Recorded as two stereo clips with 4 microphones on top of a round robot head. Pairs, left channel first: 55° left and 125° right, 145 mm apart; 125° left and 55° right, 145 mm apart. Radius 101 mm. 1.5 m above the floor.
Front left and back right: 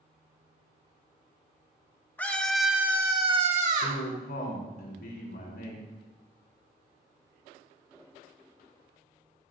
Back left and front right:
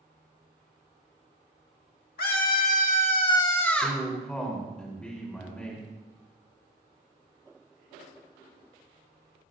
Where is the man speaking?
40° left, 4 m.